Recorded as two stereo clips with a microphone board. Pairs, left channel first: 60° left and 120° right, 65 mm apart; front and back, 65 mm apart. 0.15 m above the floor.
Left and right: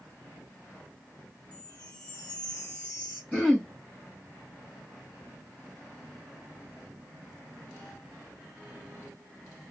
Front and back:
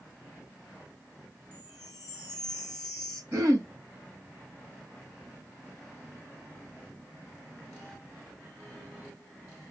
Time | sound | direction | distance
1.5 | a chime | 130° left | 2.5 m
3.3 | throat clearing | 135° left | 3.5 m